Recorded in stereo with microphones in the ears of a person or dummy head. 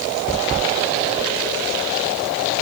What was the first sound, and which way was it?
Only background noise.